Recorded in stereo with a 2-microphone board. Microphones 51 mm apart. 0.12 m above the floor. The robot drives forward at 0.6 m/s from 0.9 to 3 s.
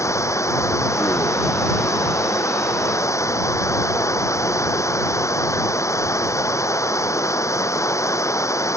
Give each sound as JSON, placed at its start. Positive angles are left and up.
{"t": 0.0, "sound": "running water", "side_deg": 75}